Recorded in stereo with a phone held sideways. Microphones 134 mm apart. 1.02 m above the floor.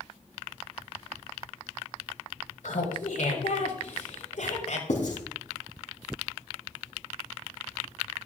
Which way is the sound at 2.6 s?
80° left.